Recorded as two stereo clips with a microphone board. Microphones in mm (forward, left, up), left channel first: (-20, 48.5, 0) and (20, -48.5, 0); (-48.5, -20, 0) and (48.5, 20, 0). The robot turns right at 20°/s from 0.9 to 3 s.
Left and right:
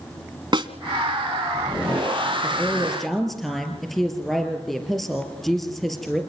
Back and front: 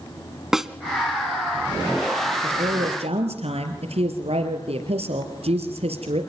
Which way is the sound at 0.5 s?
60° right.